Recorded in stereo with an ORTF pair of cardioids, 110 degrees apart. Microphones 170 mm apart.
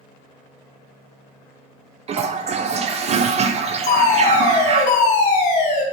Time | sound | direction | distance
2.1 | a toilet flushing | 40° right | 0.7 m
3.9 | a fire alarm | 50° left | 2 m